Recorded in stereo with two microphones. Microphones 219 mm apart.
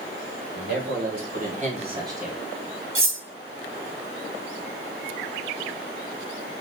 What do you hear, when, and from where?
0.5 s a man speaking: 45° right (ahead or behind), 2.5 m; by 2.4 s centre (ahead or behind), 1.2 m
3.0 s cutlery clinking: 65° right (ahead or behind), 0.7 m